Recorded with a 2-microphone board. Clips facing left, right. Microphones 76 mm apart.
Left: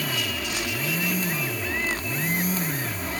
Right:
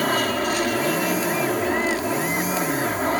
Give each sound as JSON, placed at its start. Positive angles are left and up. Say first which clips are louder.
{"t": 0.0, "sound": "an aircraft", "louder": "right 9 dB", "side_deg": -50}